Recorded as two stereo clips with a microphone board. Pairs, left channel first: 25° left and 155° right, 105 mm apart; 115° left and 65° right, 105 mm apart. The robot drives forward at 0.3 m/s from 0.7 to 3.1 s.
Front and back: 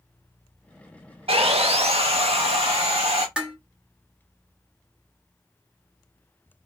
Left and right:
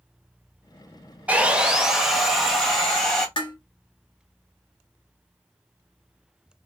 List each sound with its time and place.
1.3 s sawing: 145° right, 0.5 m; by 3.3 s 165° right, 1.0 m
3.4 s dishes clattering: 125° left, 0.9 m